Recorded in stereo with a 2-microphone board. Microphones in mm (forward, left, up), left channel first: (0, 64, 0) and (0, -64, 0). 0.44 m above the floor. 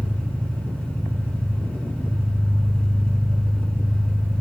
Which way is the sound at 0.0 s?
15° left (ahead or behind).